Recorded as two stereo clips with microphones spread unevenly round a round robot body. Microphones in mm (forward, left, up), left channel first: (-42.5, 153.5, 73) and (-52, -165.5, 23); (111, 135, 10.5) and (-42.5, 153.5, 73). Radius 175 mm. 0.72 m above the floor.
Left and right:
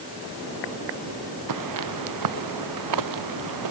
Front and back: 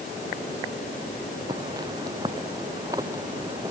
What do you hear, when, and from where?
1.5 s footsteps: 110° right